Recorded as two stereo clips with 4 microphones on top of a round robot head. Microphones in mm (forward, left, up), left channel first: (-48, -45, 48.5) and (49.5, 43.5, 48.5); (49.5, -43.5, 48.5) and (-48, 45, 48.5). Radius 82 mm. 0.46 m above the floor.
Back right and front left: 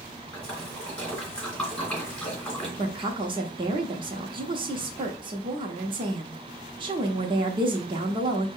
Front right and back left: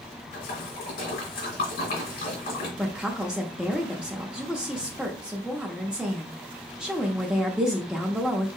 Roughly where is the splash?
Ahead right.